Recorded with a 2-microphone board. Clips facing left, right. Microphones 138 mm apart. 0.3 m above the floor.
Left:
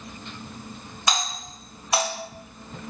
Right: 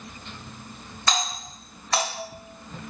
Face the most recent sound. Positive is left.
turn(degrees=15)  # may be behind; listen again after turning